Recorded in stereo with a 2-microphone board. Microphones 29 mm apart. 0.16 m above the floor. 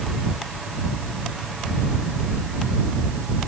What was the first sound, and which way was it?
Only background noise.